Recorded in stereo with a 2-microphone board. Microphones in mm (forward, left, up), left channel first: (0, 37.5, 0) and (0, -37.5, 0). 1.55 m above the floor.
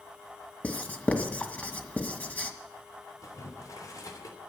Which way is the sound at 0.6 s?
20° left (ahead or behind).